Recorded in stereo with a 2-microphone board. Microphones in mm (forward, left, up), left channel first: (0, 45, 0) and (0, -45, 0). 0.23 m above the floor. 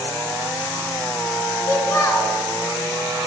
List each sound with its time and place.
1.7 s a child speaking: 40° left (ahead or behind), 0.9 m